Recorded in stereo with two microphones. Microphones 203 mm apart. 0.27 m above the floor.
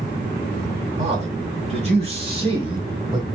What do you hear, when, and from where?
1.0 s a man speaking: 35° right (ahead or behind), 2.5 m; by 3.3 s 20° right (ahead or behind), 1.4 m